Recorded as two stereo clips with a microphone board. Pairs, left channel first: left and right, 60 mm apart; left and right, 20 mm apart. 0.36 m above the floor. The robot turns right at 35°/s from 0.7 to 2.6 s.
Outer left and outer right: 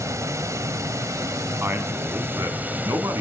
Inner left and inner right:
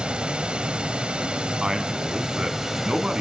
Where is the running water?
100° right, 1.0 m; by 3.2 s 35° right, 1.0 m.